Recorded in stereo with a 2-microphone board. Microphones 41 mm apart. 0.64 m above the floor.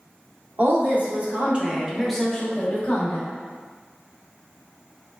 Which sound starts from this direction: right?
A woman speaking, at 0.6 s.